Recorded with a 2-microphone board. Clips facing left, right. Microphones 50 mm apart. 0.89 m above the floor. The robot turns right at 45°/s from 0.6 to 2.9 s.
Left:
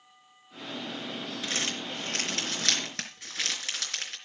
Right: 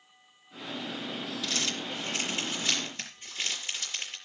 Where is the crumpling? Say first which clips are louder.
Left 1 dB; 30° left (ahead or behind), 4 m; by 4.2 s 80° left, 4 m.